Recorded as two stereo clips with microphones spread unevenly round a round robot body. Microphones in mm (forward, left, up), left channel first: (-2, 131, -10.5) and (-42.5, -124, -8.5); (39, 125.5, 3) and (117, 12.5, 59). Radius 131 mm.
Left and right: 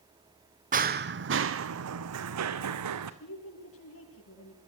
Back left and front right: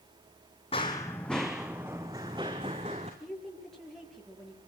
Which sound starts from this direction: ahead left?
A woman speaking, at 3.2 s.